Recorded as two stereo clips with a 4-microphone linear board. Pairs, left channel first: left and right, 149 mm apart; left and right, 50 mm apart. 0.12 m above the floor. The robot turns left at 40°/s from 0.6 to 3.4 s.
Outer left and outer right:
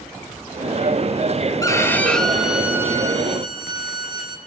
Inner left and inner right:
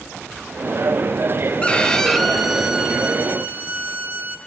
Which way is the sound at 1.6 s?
30° left.